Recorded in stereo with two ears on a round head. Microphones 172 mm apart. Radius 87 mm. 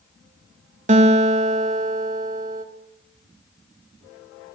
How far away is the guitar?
About 1.4 m.